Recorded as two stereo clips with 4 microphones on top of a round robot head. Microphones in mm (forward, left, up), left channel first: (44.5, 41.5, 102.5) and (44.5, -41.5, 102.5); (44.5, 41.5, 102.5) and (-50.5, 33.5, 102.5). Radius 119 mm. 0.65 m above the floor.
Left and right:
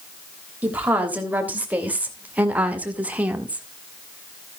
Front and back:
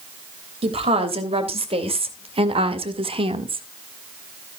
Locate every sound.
0.6 s a woman speaking: 160° right, 3.5 m